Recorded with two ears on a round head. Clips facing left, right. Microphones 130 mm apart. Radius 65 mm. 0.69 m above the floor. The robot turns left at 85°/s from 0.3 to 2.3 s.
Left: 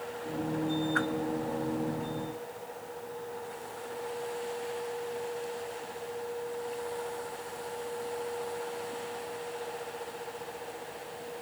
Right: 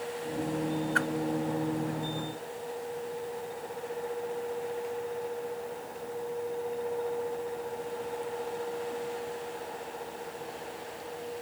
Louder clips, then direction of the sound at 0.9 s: Even; 35° right (ahead or behind).